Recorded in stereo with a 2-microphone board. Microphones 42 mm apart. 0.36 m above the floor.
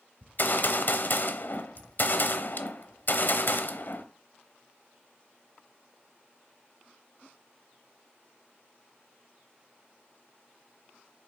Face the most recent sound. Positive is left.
turn(degrees=55)  # may be behind; listen again after turning